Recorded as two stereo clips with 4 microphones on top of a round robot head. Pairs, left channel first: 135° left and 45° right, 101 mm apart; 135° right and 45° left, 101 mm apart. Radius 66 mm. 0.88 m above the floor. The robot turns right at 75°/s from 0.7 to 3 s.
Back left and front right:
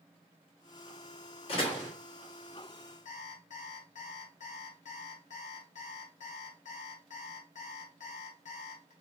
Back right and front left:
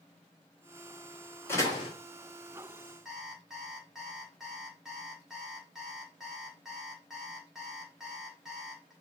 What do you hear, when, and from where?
1.5 s a door slam: 160° left, 1.5 m; by 1.9 s 170° right, 1.5 m
3.0 s an alarm clock: 135° left, 1.1 m